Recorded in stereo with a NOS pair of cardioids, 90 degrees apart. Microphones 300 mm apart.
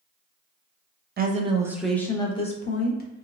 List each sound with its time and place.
1.2 s a woman speaking: 30° right, 0.6 m; by 3.2 s 35° left, 1.2 m